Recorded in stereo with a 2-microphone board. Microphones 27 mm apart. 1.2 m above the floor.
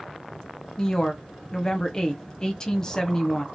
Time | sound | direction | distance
0.8 | a woman speaking | 20° left (ahead or behind) | 0.8 m